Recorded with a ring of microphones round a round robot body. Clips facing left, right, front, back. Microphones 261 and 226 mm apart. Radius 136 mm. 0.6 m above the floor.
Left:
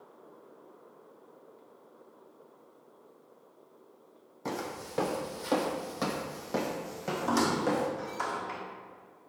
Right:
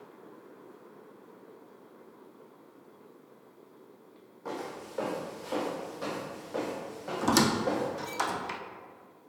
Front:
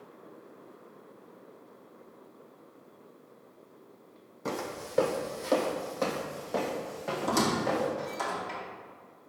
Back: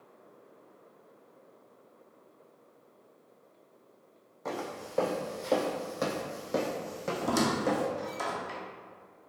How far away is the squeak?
About 0.6 m.